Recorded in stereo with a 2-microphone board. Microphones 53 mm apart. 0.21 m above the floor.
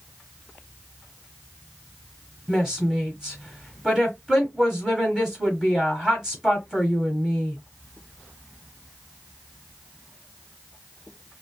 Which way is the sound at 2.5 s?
5° right (ahead or behind).